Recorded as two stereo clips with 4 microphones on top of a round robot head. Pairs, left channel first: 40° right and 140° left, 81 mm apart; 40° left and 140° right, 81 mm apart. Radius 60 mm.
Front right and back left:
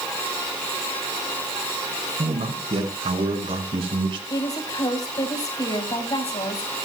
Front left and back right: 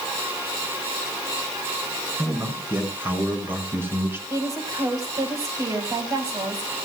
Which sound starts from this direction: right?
A woman speaking, at 4.3 s.